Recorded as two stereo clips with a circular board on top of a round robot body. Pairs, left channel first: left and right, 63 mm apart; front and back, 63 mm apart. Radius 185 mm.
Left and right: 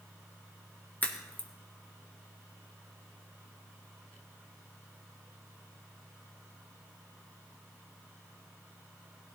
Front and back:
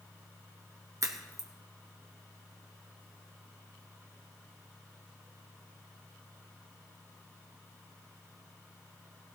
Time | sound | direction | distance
1.0 | a crack | 150° left | 1.8 m